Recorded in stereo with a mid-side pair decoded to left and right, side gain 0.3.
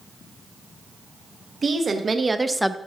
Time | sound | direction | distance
1.6 | a woman speaking | 55° right | 1.4 m